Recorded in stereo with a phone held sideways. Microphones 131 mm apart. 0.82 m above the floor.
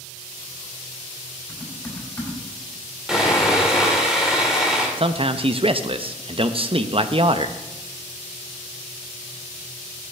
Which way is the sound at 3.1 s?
5° right (ahead or behind).